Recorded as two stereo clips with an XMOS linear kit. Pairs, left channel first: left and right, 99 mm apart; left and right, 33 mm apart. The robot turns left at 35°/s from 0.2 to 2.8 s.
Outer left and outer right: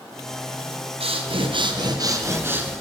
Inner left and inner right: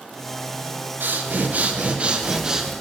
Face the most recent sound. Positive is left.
turn(degrees=-170)